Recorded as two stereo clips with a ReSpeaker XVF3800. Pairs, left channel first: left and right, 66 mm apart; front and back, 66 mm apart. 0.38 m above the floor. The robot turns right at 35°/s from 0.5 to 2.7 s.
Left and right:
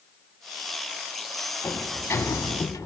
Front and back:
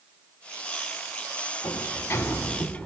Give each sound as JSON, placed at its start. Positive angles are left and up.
{"t": 1.6, "sound": "a sliding door", "azimuth_deg": 25, "distance_m": 0.5}